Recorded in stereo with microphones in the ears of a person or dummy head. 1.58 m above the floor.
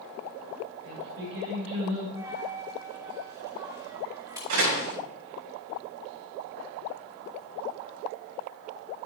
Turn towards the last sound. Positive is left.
turn(degrees=-75)  # may be behind; listen again after turning